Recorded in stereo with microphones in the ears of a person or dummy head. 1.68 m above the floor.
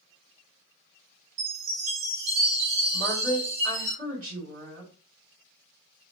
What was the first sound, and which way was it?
A chime, 75° right (ahead or behind).